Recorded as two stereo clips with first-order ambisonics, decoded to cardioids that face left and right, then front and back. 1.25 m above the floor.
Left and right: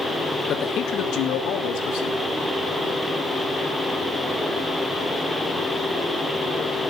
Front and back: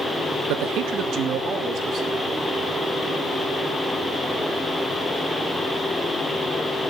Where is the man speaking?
150° left, 1.4 m; by 2.4 s 115° left, 4 m.